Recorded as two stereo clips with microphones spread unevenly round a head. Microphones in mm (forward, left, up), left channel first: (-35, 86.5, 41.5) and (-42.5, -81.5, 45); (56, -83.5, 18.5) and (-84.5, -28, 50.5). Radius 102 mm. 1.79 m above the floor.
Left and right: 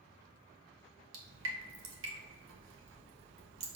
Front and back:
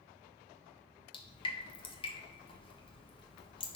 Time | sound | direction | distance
1.1 | dripping | 80° right | 1.5 m